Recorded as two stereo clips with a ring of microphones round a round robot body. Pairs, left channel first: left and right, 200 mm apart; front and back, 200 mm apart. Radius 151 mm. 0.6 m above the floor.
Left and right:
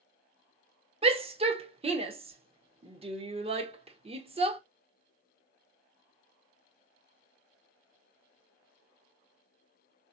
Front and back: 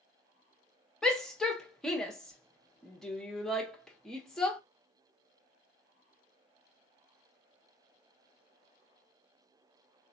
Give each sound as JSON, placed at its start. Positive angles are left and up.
{"t": 1.0, "sound": "a shout", "azimuth_deg": -85, "distance_m": 0.8}